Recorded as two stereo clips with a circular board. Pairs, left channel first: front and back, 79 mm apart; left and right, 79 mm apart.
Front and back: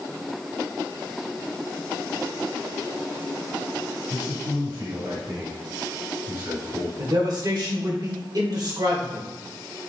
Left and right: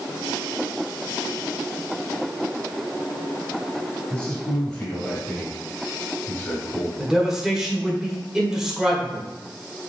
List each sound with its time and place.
4.1 s a man speaking: 155° left, 2.5 m
7.0 s a man speaking: 175° right, 1.9 m